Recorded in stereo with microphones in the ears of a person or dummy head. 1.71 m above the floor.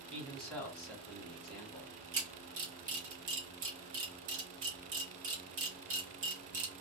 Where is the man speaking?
5° left (ahead or behind), 1.2 m.